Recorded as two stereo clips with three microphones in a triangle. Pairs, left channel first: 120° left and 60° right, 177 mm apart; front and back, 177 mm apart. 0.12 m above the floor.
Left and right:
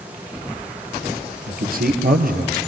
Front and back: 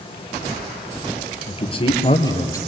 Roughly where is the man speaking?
Ahead right.